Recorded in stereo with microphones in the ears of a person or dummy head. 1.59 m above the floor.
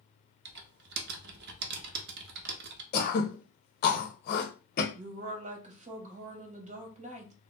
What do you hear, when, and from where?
0.5 s typing on a keyboard: 55° right (ahead or behind), 0.7 m
2.9 s throat clearing: 60° left (ahead or behind), 0.8 m
5.0 s a woman speaking: 35° right (ahead or behind), 1.0 m